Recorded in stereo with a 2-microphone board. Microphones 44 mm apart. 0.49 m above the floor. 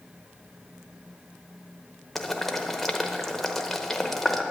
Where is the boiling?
5° left (ahead or behind), 0.8 m.